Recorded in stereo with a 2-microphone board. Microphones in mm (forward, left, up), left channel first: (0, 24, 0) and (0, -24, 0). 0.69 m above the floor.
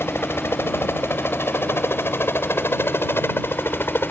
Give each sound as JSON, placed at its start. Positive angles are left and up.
{"t": 0.0, "sound": "a helicopter", "side_deg": 60}